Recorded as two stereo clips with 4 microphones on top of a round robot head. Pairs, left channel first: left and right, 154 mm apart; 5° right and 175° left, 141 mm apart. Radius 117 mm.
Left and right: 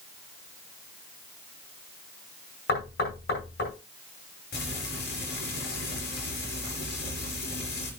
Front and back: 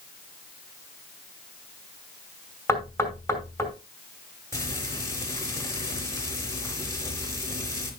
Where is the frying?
65° left, 4 m.